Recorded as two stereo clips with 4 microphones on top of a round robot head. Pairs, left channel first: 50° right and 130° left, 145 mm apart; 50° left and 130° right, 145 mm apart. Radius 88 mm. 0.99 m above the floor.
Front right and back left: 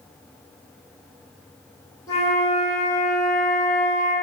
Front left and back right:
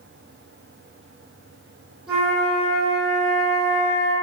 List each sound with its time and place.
2.1 s a flute: 50° right, 0.8 m